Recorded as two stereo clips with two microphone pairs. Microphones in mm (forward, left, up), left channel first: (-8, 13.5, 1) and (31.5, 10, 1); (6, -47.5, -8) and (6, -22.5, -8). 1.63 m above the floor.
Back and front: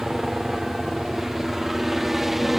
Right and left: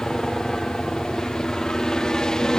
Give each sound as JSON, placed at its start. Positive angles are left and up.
{"t": 0.0, "sound": "a helicopter", "azimuth_deg": -75}